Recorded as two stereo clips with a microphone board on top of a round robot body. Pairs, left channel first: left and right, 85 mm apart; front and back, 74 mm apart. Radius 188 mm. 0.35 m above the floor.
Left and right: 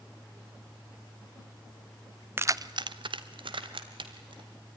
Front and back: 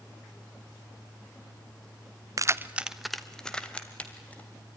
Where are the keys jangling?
150° right, 0.7 m; by 4.5 s 70° right, 2.5 m.